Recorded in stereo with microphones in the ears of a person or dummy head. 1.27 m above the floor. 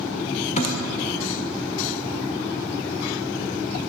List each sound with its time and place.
0.6 s a thud: 45° left (ahead or behind), 1.5 m